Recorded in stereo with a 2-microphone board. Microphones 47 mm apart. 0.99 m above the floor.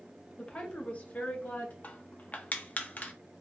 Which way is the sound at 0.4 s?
20° left (ahead or behind).